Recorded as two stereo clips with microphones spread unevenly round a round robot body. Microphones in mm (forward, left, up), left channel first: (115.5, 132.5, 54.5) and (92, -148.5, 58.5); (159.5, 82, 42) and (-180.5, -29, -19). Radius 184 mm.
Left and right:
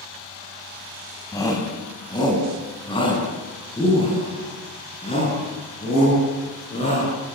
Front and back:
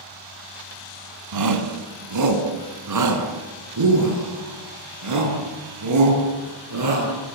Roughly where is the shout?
Behind.